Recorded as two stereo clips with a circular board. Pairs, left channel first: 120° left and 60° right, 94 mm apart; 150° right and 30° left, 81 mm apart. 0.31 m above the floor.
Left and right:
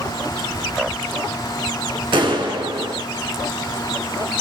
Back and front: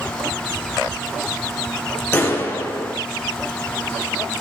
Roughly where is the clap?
Right.